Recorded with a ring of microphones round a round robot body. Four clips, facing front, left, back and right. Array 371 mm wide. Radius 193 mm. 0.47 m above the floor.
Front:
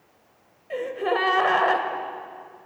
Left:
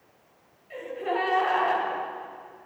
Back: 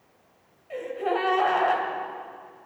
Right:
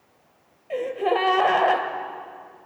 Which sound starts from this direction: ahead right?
A gasp, at 0.7 s.